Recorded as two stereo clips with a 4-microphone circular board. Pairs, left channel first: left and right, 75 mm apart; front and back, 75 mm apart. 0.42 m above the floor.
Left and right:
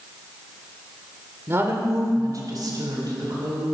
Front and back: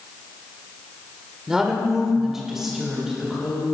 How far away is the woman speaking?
About 1.5 m.